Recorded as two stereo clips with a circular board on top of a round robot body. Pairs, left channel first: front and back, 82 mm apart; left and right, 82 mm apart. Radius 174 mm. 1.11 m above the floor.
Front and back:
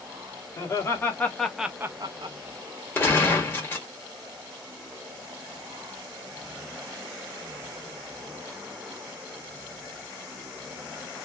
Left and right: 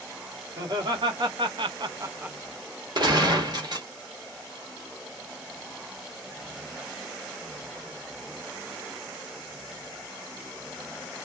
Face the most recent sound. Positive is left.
turn(degrees=-65)